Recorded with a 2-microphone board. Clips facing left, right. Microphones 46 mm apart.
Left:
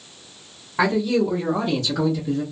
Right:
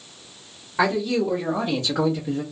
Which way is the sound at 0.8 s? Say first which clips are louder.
Left 2 dB; 5° left (ahead or behind).